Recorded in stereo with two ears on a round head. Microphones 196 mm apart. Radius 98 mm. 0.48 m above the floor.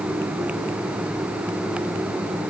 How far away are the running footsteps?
I don't hear running footsteps.